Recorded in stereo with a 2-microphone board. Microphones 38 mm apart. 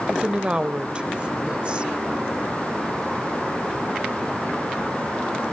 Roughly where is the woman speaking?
Right.